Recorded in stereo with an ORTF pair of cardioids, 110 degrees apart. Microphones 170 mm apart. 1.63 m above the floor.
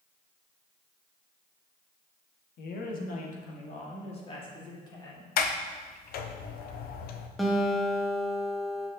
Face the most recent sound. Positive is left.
turn(degrees=0)